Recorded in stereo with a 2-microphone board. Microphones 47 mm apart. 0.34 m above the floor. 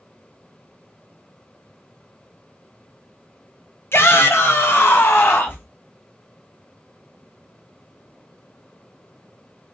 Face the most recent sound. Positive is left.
turn(degrees=45)  # may be behind; listen again after turning